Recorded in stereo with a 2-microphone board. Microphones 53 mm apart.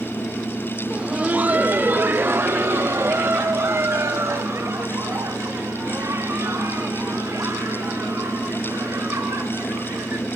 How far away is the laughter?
About 0.8 m.